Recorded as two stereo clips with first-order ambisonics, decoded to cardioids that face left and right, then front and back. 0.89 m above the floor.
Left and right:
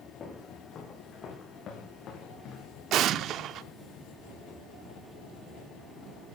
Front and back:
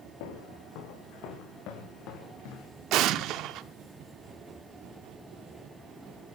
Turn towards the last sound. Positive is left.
turn(degrees=-140)